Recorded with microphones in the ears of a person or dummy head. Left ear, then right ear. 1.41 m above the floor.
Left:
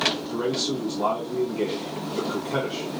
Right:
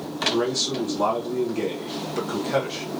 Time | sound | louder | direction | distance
0.3 | a man speaking | right 2 dB | 60° right (ahead or behind) | 0.9 m